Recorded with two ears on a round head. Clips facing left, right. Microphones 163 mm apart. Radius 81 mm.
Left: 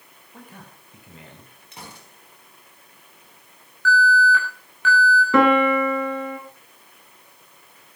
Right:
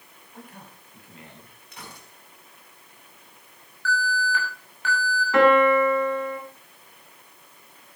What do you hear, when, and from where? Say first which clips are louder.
0.3 s a man speaking: left 1 dB; 70° left (ahead or behind), 6.5 m
1.7 s a gunshot: left 2 dB; 25° left (ahead or behind), 5.5 m
3.9 s an alarm: left 8 dB; 70° left (ahead or behind), 7 m
5.3 s a piano: right 1 dB; 75° left (ahead or behind), 3.5 m